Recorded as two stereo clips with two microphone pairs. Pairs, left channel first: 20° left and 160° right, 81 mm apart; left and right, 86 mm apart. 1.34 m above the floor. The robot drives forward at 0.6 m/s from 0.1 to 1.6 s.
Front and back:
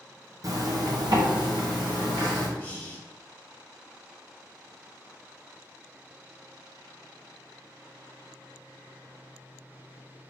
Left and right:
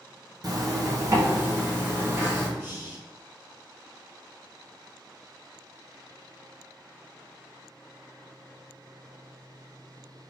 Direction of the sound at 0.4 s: 125° right.